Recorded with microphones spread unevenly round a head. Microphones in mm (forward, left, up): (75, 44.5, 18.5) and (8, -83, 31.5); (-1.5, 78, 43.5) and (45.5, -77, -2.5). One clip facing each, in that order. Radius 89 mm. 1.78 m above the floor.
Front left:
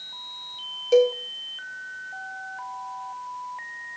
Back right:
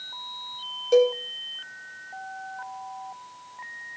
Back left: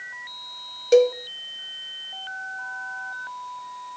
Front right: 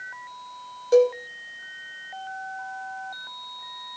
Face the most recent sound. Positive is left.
turn(degrees=150)